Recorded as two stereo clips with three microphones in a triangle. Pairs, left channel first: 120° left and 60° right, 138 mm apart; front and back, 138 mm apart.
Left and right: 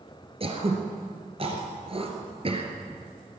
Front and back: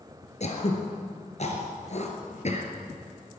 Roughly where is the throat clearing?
Ahead.